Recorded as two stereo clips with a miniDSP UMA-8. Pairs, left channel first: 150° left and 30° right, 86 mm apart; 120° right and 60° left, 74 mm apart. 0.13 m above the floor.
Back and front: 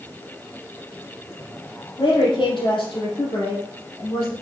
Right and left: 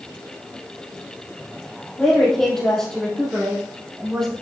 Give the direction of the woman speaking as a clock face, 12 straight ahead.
7 o'clock.